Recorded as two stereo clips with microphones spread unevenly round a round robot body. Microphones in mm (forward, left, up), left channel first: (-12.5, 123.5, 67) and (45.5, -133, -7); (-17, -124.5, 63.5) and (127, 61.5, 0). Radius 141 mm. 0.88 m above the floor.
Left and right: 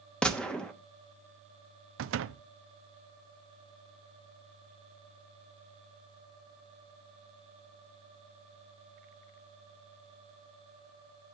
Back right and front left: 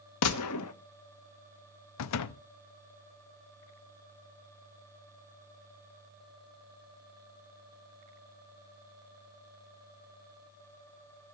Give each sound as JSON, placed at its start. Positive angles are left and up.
{"t": 0.2, "sound": "a gunshot", "azimuth_deg": -165, "distance_m": 1.1}
{"t": 2.0, "sound": "a door slam", "azimuth_deg": -110, "distance_m": 0.7}